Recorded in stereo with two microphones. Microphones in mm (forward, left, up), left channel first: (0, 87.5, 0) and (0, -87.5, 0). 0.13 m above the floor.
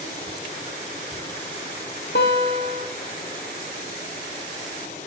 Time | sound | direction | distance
2.1 | a guitar | 80° left | 3.5 m